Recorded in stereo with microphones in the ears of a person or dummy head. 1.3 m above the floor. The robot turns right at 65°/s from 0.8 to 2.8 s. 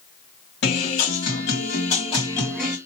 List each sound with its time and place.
0.6 s a guitar: 65° left, 3 m; by 2.8 s 165° right, 3 m